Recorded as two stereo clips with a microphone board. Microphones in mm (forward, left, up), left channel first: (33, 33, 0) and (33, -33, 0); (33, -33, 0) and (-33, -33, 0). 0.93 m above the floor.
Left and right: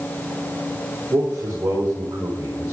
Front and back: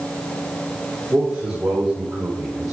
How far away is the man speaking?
About 3 m.